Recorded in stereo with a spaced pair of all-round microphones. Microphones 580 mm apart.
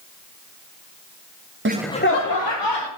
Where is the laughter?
25° right (ahead or behind), 0.5 m; by 2.9 s 45° left (ahead or behind), 1.6 m.